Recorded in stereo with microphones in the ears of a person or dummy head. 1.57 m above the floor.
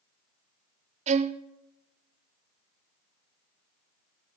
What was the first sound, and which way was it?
A violin, 35° right (ahead or behind).